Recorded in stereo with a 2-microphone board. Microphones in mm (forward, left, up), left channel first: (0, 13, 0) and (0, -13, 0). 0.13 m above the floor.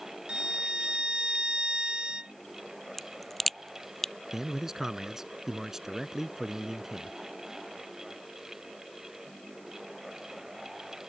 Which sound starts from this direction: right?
A violin, at 0.3 s.